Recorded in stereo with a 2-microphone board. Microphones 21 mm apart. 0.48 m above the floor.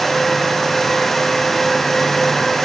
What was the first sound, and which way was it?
Only background noise.